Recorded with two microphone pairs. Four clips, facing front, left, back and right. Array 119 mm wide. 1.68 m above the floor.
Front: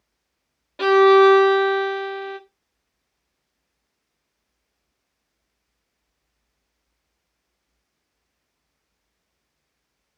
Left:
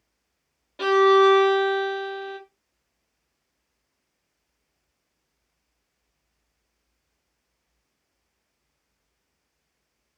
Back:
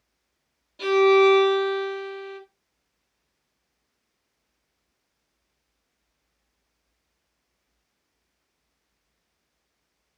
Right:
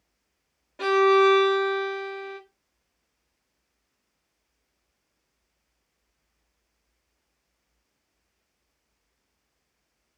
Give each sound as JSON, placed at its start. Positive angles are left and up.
{"t": 0.8, "sound": "a violin", "azimuth_deg": 10, "distance_m": 0.6}